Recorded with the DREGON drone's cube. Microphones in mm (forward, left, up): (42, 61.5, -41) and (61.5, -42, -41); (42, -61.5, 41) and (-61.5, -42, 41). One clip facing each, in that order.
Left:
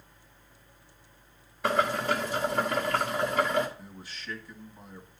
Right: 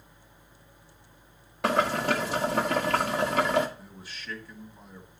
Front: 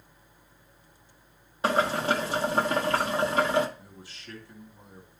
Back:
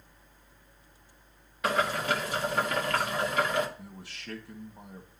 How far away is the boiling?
About 1.4 m.